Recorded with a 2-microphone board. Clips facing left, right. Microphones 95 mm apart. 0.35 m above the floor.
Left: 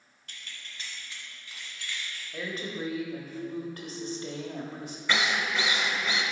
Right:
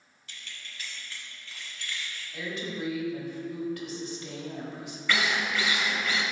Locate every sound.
0.3 s keys jangling: 55° left (ahead or behind), 1.1 m; by 2.2 s centre (ahead or behind), 3 m
2.3 s a woman speaking: 40° left (ahead or behind), 1.3 m
5.1 s a drill: 20° left (ahead or behind), 0.8 m